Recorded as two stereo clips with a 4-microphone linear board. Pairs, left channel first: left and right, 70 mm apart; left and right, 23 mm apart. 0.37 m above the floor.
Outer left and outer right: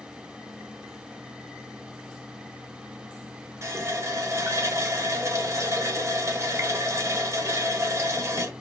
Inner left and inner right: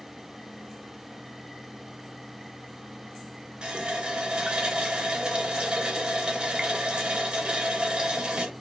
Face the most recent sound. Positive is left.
turn(degrees=-45)  # may be behind; listen again after turning